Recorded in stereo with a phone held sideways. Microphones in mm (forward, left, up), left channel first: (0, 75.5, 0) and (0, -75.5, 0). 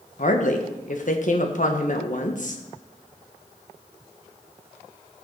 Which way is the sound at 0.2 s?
55° left (ahead or behind).